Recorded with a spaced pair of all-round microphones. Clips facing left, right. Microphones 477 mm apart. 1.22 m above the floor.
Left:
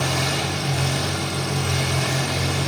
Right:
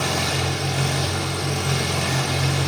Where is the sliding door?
No sliding door in this recording.